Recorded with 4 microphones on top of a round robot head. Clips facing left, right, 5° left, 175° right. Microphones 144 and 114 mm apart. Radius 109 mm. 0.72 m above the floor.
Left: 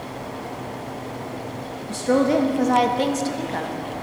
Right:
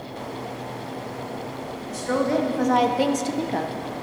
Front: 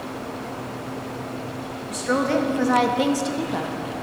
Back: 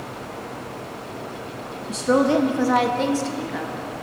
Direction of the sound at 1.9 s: 135° left.